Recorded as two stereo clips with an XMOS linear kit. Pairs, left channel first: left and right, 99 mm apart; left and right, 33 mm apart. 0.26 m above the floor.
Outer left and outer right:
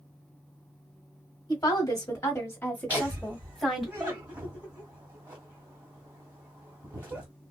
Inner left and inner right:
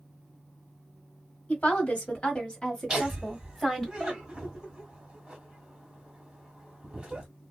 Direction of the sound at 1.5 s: 40° left (ahead or behind).